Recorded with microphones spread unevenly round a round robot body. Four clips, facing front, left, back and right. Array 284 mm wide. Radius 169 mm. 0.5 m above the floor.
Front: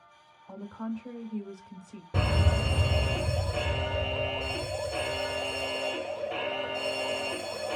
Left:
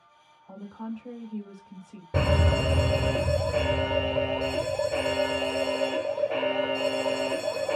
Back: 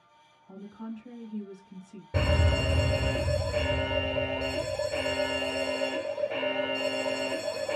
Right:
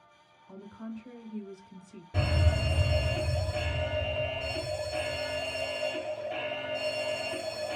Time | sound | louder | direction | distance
0.5 | a woman speaking | left 5 dB, front 4 dB | 45° left | 2 m
2.1 | a fire alarm | left 7 dB, back 2 dB | 75° left | 3 m